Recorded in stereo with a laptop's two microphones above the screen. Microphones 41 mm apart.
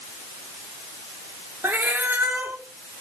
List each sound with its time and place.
1.6 s a cat meowing: 60° right (ahead or behind), 1.0 m